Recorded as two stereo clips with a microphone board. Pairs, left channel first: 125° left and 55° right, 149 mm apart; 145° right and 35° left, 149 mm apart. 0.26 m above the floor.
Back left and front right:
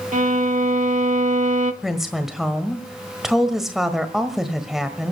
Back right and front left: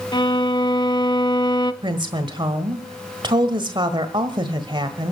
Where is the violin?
85° right, 0.7 m.